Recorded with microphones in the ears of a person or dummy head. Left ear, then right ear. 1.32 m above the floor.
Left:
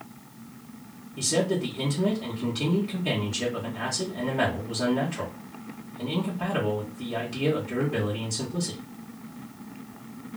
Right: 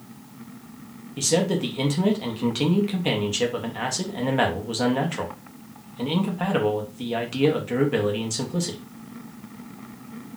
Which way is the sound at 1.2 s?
35° right (ahead or behind).